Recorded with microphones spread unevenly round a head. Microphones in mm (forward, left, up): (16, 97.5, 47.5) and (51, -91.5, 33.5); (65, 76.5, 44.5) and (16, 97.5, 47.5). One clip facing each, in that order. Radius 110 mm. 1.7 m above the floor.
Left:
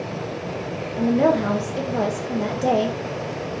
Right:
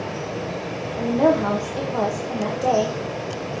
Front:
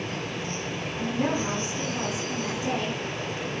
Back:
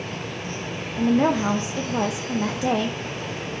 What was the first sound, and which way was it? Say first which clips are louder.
A woman speaking: even, back 8 dB; straight behind.